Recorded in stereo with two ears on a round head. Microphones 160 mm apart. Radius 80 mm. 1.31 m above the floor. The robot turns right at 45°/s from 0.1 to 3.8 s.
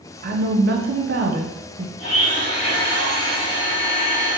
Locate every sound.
0.2 s a woman speaking: 115° right, 0.8 m; by 1.9 s 40° right, 0.8 m
2.0 s a blender: 75° left, 2.5 m; by 4.4 s 155° left, 2.5 m